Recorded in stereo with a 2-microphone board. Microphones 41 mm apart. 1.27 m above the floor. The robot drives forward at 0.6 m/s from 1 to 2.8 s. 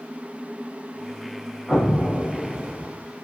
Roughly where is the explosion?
Centre.